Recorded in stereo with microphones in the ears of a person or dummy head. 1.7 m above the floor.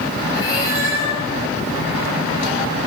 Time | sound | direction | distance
0.3 | a cat meowing | 35° left (ahead or behind) | 4 m